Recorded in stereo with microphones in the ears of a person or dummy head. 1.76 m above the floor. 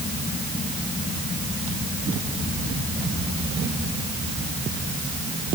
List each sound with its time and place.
Only background noise.